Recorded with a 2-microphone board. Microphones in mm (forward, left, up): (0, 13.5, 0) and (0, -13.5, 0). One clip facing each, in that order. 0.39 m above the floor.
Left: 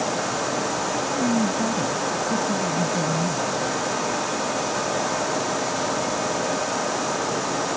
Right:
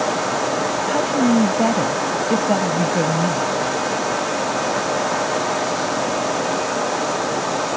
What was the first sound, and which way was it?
A woman speaking, 60° right (ahead or behind).